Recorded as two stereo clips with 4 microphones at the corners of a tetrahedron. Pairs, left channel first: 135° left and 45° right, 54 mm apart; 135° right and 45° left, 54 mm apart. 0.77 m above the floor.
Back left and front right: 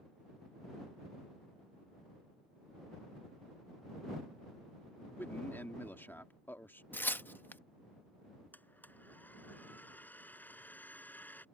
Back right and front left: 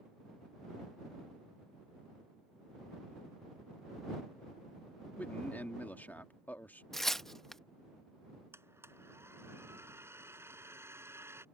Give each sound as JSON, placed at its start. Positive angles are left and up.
{"t": 5.2, "sound": "a man speaking", "azimuth_deg": 175}
{"t": 6.9, "sound": "tearing paper", "azimuth_deg": 145}
{"t": 8.5, "sound": "a blender", "azimuth_deg": 80}